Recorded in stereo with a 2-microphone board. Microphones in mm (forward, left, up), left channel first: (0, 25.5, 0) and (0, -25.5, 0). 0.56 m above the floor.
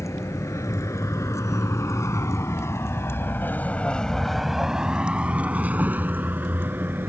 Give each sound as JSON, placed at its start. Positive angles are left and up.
{"t": 0.0, "sound": "a vehicle", "side_deg": 80}